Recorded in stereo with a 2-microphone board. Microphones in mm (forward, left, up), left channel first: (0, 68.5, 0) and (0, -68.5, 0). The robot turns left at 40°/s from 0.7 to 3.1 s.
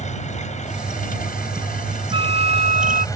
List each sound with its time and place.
0.0 s an engine running: 120° left; by 3.1 s 25° left
2.1 s a flute: 45° right; by 3.0 s 80° right